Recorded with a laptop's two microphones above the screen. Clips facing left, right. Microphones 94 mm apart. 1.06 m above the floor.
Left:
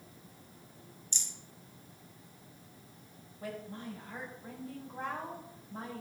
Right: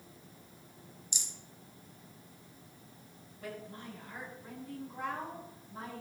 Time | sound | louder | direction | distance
1.1 | a rattle | even | 15° right (ahead or behind) | 1.6 m
3.4 | a woman speaking | left 2 dB | 35° left (ahead or behind) | 5 m